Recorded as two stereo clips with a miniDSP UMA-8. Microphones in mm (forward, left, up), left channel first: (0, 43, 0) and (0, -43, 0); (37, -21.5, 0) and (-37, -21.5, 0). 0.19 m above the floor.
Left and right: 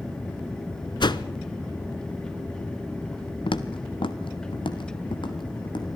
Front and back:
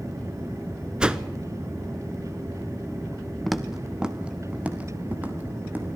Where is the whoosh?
105° left, 0.8 m.